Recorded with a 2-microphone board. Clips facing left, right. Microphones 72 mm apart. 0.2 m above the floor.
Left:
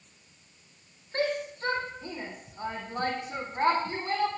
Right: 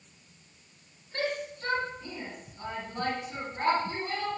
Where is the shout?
35° left (ahead or behind), 9.5 m; by 4.3 s 40° left (ahead or behind), 11 m.